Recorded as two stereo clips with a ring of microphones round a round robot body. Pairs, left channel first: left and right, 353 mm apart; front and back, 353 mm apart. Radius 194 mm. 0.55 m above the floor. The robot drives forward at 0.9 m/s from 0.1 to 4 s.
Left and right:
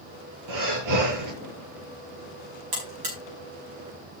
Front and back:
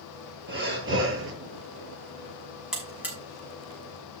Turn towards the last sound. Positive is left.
turn(degrees=-105)